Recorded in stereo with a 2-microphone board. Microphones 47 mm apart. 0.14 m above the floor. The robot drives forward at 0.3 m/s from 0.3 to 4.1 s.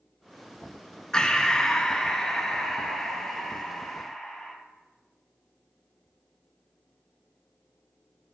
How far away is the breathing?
About 0.7 m.